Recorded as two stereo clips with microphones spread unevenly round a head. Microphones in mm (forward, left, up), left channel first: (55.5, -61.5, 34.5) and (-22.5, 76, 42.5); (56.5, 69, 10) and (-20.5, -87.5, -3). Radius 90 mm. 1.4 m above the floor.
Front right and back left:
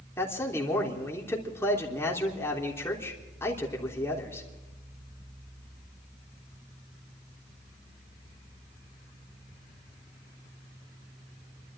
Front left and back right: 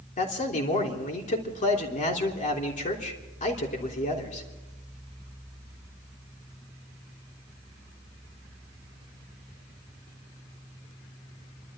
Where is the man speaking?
15° left, 3 m.